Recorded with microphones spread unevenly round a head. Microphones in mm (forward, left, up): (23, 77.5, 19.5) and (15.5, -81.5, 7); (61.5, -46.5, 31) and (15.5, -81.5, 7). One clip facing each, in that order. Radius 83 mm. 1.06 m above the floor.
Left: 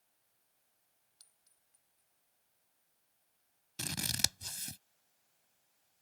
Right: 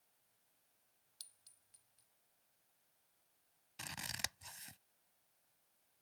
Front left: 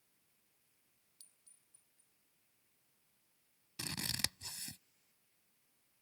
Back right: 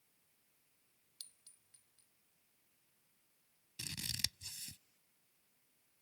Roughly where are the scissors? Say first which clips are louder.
Left 8 dB, front left 4 dB; ahead left.